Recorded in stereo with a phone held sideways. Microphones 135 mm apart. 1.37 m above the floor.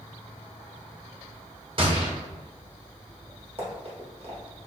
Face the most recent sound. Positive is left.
turn(degrees=-45)  # may be behind; listen again after turning